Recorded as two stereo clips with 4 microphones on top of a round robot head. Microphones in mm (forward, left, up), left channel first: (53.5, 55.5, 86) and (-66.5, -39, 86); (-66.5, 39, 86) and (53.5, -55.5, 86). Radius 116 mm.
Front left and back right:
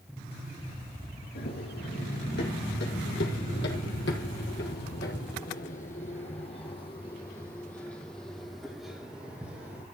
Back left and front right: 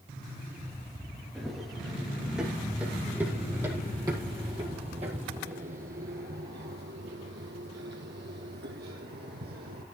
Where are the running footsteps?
55° left, 3 m; by 9.8 s 65° right, 2.5 m.